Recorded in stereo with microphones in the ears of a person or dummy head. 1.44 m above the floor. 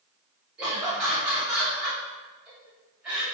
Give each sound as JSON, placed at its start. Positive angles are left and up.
{"t": 0.6, "sound": "laughter", "side_deg": -10, "distance_m": 1.5}